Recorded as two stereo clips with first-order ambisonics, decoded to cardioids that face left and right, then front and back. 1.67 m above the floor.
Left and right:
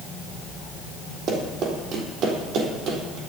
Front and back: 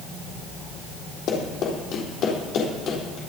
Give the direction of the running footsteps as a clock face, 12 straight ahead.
1 o'clock.